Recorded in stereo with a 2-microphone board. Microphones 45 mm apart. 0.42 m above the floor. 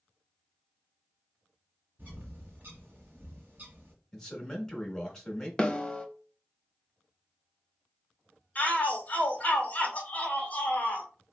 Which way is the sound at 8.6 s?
35° left (ahead or behind).